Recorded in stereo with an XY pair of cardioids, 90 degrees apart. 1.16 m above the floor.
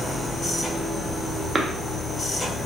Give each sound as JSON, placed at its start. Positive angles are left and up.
{"t": 0.0, "sound": "a machine running", "azimuth_deg": 35, "distance_m": 1.3}
{"t": 1.6, "sound": "a cough", "azimuth_deg": -30, "distance_m": 0.9}